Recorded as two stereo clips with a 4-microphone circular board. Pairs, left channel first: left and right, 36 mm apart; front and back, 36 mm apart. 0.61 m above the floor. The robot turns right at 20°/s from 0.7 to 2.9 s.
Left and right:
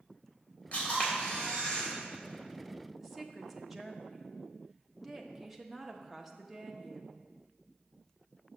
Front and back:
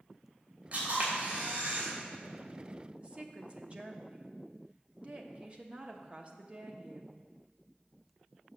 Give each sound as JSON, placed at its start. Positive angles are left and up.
{"t": 0.7, "sound": "a camera shutter", "azimuth_deg": 135, "distance_m": 3.0}
{"t": 3.0, "sound": "a woman speaking", "azimuth_deg": -175, "distance_m": 0.9}